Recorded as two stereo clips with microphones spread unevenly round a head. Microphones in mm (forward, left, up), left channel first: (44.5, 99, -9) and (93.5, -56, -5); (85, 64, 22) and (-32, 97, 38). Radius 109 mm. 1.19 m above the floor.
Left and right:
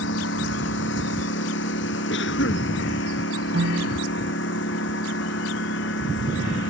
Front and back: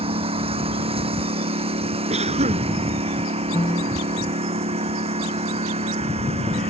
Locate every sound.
0.0 s a lawn mower: 130° left; by 6.7 s 135° left
2.1 s a cough: 135° left
3.5 s a piano: 95° right